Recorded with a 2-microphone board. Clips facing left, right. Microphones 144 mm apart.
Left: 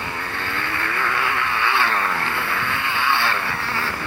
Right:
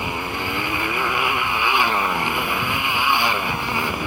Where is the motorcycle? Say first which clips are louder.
Right 3 dB; 15° right (ahead or behind).